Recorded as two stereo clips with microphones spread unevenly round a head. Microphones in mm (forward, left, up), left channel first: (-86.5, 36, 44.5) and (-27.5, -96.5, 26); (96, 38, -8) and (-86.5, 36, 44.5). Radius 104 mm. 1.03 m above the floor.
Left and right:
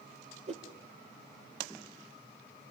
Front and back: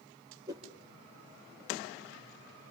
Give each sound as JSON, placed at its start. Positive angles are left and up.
{"t": 0.5, "sound": "a whoosh", "azimuth_deg": -110, "distance_m": 4.0}